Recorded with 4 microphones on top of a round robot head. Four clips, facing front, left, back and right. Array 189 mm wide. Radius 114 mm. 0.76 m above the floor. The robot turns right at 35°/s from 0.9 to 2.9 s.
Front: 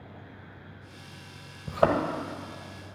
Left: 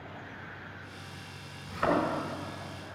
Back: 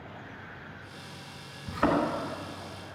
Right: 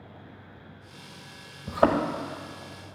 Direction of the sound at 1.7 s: 55° right.